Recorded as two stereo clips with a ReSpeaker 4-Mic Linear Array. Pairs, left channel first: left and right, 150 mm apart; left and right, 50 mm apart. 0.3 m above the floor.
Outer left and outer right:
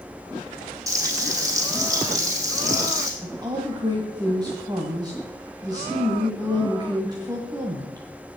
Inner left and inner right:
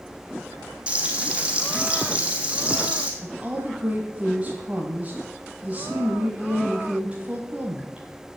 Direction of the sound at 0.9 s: 20° right (ahead or behind).